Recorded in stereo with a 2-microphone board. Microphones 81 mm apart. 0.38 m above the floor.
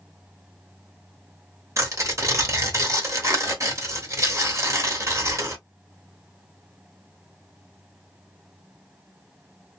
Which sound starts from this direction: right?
Tearing paper, at 1.8 s.